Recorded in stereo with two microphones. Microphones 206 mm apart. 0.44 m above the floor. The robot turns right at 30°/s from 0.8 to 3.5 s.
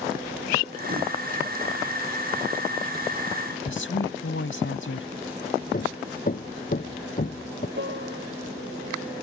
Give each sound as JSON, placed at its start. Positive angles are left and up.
{"t": 3.6, "sound": "a woman speaking", "side_deg": 70}
{"t": 5.7, "sound": "hammering", "side_deg": 40}
{"t": 7.8, "sound": "a piano", "side_deg": -60}